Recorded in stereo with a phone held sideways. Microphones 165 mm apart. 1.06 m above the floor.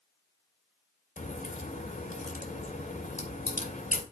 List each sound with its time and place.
1.2 s a crack: 55° left (ahead or behind), 2.5 m